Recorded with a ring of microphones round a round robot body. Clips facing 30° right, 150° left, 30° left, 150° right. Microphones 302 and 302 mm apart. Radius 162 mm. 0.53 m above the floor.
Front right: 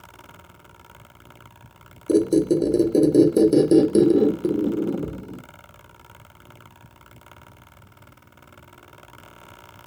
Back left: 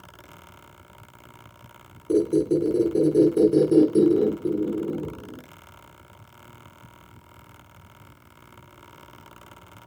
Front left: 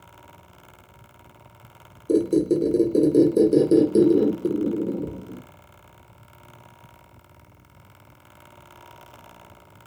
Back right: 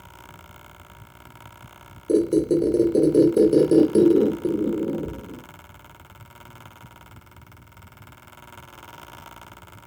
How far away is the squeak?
About 0.7 m.